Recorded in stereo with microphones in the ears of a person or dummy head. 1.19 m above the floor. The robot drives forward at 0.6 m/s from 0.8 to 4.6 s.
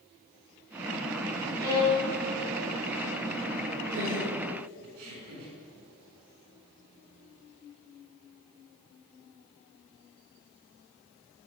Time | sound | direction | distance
1.6 | a violin | 15° right (ahead or behind) | 6.5 m
3.9 | laughter | 70° right (ahead or behind) | 4.5 m